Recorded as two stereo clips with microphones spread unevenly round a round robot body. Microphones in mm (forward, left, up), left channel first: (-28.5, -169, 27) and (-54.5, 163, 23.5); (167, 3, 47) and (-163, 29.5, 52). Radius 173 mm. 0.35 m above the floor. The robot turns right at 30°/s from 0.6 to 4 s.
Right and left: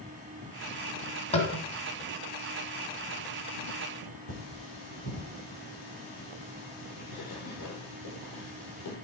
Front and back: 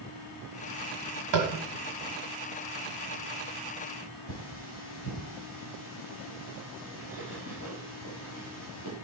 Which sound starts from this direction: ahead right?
Cutlery clinking, at 4.3 s.